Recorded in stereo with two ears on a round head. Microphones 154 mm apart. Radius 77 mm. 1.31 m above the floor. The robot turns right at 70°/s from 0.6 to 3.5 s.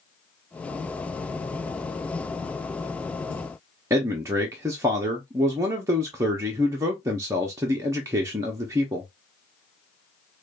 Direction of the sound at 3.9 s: 20° right (ahead or behind).